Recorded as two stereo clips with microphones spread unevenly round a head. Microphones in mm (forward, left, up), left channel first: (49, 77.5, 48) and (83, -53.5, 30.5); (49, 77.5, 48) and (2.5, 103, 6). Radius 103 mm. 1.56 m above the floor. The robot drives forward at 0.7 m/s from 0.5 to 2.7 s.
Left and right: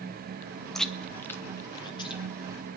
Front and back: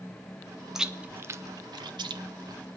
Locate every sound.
0.8 s chewing: 25° left, 0.7 m; by 2.8 s 165° left, 1.0 m